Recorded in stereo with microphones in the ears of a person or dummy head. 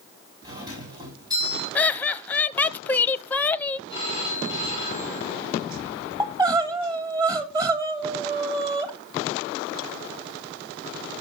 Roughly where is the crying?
Centre.